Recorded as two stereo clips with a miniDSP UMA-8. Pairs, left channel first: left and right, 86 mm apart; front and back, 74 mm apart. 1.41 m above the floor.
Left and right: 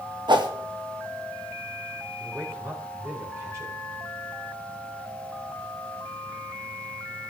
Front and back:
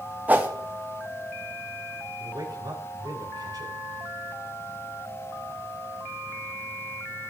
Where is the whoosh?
115° right, 1.3 m.